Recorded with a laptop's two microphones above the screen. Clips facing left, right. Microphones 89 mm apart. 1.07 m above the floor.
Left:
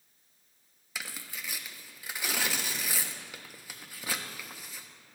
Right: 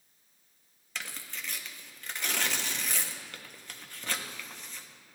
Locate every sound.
0.9 s tearing paper: 10° left (ahead or behind), 0.7 m